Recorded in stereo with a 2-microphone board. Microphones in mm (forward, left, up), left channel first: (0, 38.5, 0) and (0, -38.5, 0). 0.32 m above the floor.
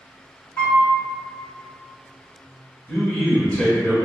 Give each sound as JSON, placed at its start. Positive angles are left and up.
{"t": 0.6, "sound": "a piano", "side_deg": 40, "distance_m": 1.6}
{"t": 2.9, "sound": "a man speaking", "side_deg": 25, "distance_m": 1.3}